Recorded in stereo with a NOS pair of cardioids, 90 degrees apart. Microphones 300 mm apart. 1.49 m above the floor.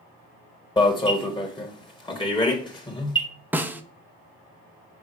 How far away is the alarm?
About 1.5 m.